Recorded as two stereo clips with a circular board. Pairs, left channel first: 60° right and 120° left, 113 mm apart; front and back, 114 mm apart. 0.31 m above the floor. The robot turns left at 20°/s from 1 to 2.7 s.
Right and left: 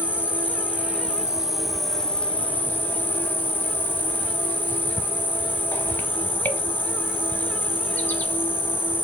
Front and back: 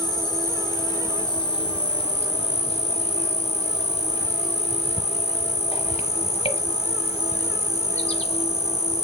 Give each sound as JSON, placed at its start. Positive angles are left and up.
{"t": 0.0, "sound": "an insect", "azimuth_deg": 45, "distance_m": 0.8}